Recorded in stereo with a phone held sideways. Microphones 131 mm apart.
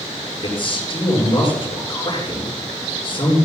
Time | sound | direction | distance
0.4 | a man speaking | 40° left (ahead or behind) | 7.5 m